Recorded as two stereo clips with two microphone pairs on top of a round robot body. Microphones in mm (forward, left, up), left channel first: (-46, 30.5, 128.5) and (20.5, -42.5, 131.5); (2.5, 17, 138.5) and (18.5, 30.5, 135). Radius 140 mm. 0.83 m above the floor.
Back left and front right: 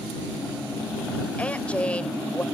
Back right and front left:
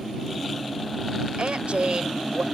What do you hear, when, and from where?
1.4 s a woman speaking: 55° left